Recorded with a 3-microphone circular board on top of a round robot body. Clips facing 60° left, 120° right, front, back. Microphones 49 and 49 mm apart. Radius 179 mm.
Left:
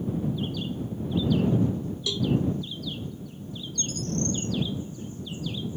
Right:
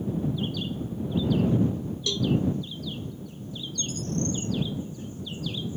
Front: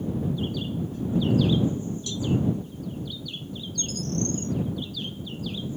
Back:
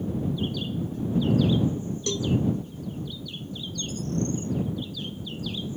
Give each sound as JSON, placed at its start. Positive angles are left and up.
{"t": 2.1, "sound": "a cowbell", "azimuth_deg": 145}
{"t": 3.8, "sound": "a bird", "azimuth_deg": 25}